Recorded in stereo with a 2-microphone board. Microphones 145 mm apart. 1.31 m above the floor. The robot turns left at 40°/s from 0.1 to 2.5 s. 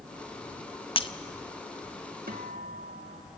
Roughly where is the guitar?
Right.